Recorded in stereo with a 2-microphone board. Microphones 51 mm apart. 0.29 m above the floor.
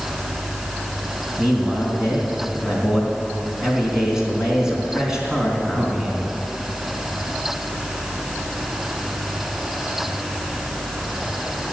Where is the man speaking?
10° right (ahead or behind), 3.5 m.